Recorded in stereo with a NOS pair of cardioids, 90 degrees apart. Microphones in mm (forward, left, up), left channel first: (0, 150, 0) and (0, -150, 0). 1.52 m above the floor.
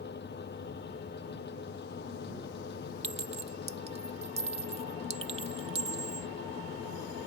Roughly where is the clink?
Ahead.